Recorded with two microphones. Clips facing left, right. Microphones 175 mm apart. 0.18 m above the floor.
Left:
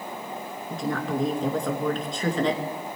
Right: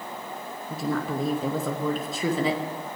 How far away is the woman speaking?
About 2.5 m.